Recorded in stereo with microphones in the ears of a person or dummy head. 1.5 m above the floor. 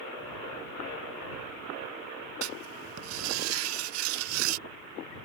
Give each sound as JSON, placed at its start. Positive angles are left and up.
{"t": 2.4, "sound": "writing", "side_deg": -85}